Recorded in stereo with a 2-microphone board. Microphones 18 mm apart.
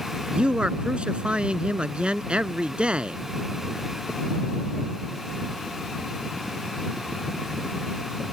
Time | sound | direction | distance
0.3 | a man speaking | 75° right (ahead or behind) | ?